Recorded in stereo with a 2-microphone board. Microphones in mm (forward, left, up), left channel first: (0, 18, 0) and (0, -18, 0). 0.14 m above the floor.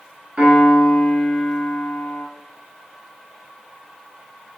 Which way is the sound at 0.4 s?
30° right (ahead or behind).